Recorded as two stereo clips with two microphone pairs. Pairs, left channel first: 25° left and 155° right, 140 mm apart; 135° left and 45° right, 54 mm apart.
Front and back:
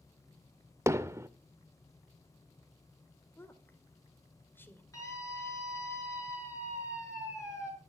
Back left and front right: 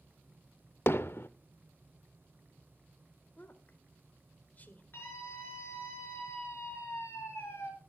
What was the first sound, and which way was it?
Hammering, 145° left.